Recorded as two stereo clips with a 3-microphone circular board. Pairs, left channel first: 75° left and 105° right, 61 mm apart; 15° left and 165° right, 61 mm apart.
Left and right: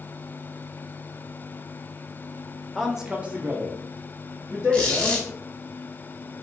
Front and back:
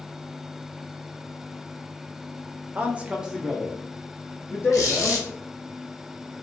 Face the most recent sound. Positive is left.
turn(degrees=5)